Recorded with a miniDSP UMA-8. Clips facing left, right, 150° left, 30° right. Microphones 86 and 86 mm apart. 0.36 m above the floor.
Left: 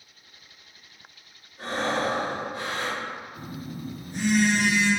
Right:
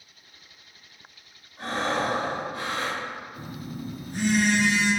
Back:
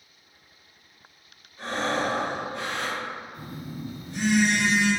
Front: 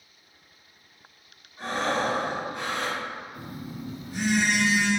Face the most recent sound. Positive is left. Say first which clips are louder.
# even, even
turn(degrees=-115)